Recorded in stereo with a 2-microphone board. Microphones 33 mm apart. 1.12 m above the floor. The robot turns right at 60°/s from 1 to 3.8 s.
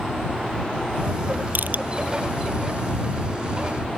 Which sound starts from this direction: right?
Crushing, at 1.6 s.